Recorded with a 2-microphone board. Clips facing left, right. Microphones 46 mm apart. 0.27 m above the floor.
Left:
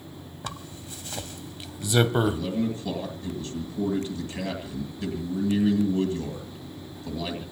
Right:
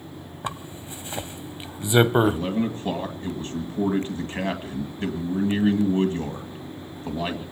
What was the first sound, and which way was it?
A zipper, 25° right (ahead or behind).